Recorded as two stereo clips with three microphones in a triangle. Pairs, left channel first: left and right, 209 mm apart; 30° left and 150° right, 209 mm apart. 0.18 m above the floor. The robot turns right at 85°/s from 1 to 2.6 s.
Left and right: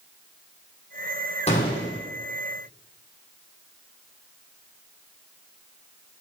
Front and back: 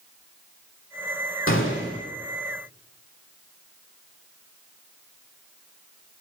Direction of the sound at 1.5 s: 30° left.